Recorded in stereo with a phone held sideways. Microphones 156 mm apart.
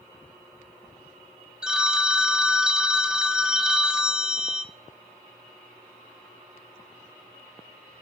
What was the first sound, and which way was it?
A phone ringing, 5° right (ahead or behind).